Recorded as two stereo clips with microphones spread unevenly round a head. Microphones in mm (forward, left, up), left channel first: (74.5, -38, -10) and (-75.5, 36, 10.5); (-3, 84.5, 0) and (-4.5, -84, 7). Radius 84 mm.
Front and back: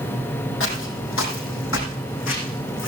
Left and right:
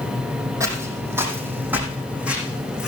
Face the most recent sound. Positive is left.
turn(degrees=-5)